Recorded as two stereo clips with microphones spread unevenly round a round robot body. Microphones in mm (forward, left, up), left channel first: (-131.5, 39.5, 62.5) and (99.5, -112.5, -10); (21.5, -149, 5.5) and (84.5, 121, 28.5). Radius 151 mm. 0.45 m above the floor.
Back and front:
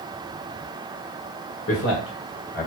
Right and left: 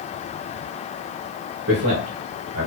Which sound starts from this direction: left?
A man speaking, at 1.7 s.